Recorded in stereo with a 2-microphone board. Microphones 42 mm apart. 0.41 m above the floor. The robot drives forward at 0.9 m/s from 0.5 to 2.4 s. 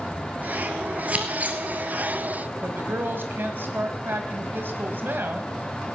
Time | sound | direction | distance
1.1 | scissors | 30° right (ahead or behind) | 1.9 m
2.6 | a woman speaking | 55° right (ahead or behind) | 2 m